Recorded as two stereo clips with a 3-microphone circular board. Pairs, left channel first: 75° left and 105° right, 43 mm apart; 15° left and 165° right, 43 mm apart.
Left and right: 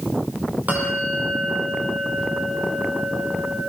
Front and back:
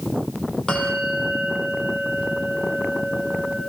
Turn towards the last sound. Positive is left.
turn(degrees=-55)